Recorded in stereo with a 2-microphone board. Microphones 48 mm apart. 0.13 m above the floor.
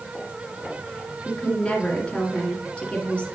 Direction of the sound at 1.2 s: 25° left (ahead or behind).